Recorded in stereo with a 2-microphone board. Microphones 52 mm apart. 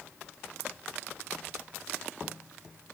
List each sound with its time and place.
Only background noise.